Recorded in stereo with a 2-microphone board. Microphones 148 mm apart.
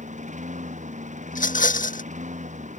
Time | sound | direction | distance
0.0 | a lawn mower | 55° right (ahead or behind) | ?
1.3 | a rattle | 65° left (ahead or behind) | ?